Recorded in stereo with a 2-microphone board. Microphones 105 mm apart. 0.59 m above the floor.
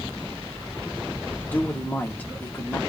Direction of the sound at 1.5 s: 15° left (ahead or behind).